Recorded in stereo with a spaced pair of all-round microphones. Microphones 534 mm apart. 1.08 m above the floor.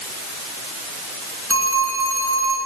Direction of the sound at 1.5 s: 25° right (ahead or behind).